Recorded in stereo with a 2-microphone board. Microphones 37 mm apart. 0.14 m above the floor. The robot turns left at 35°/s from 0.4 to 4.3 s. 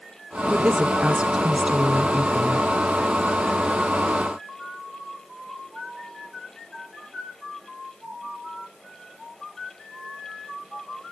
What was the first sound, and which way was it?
A woman speaking, 25° right (ahead or behind).